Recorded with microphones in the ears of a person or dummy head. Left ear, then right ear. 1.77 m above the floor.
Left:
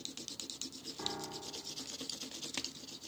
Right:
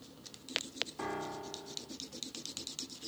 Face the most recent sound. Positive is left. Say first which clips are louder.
# right 2 dB
turn(degrees=-15)  # may be behind; listen again after turning